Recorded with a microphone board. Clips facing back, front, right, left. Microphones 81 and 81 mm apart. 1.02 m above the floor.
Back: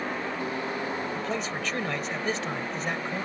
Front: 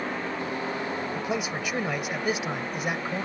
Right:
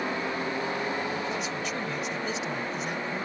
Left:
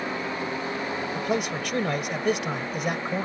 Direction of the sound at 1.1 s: 75° left.